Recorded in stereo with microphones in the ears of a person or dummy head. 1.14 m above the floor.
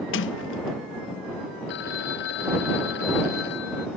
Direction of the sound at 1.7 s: 70° left (ahead or behind).